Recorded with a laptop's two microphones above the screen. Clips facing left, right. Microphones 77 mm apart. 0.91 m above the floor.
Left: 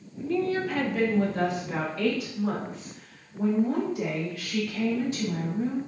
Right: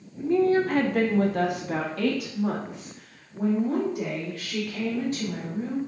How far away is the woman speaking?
About 0.6 m.